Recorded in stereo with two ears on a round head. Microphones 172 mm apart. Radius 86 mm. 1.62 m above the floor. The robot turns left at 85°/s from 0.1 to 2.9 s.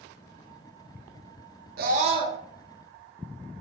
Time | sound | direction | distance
1.8 | a scream | 115° right | 0.6 m